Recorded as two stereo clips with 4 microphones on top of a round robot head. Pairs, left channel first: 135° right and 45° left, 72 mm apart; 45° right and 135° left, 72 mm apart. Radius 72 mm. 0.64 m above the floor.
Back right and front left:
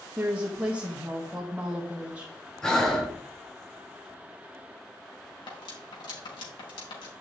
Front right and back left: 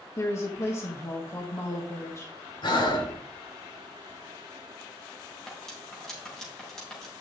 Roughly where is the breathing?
Ahead right.